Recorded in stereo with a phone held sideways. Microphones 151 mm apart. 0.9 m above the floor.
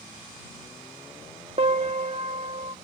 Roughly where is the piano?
Right.